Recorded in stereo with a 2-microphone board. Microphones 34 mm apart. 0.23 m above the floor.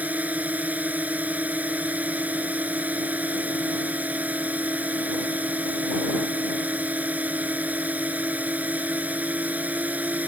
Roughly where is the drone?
Right.